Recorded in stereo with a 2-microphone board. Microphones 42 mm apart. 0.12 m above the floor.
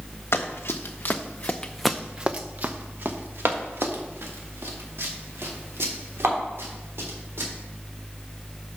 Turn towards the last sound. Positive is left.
turn(degrees=-75)  # may be behind; listen again after turning